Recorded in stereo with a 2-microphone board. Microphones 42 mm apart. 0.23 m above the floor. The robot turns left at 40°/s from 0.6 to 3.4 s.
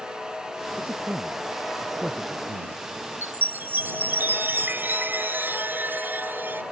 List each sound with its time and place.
0.8 s a man speaking: 40° right (ahead or behind); by 2.8 s 30° left (ahead or behind)
3.2 s a chime: 60° right (ahead or behind); by 6.6 s 55° right (ahead or behind)